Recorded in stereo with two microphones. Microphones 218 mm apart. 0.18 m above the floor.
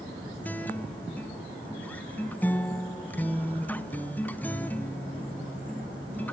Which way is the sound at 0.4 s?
10° left (ahead or behind).